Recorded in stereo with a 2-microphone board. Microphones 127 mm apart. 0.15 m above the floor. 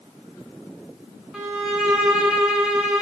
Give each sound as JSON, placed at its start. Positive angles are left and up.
{"t": 1.3, "sound": "a violin", "side_deg": -5, "distance_m": 1.4}